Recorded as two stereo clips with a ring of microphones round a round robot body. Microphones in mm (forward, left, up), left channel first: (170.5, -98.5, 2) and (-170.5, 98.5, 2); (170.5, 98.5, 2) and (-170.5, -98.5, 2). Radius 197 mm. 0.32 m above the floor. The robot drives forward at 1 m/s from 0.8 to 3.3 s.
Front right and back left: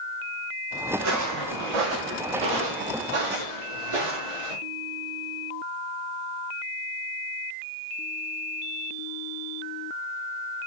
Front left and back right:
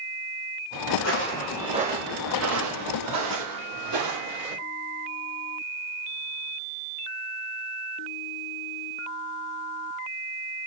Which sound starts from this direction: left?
Footsteps, at 0.9 s.